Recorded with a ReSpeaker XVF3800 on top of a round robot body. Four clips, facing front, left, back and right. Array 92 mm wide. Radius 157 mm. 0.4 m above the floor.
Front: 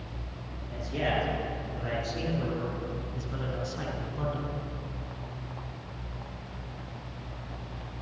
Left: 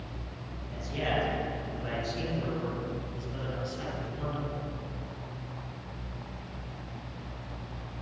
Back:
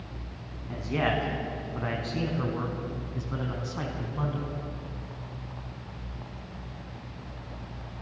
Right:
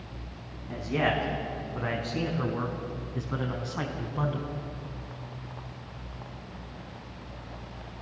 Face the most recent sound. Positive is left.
turn(degrees=-105)